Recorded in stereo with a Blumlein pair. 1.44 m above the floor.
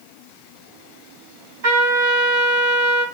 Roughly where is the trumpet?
Ahead right.